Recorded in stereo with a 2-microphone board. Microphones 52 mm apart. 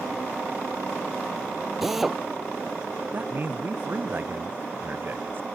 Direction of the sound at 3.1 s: 40° right (ahead or behind).